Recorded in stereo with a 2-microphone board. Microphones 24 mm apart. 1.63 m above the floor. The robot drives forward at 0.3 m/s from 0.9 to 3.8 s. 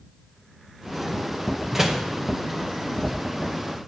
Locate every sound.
1.7 s a door slam: 15° right (ahead or behind), 0.9 m